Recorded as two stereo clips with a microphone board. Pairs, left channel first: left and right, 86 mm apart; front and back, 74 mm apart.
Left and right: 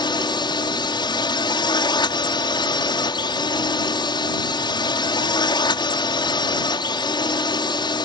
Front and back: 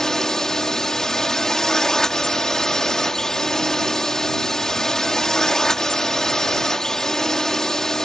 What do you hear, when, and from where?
0.0 s a drone: 80° left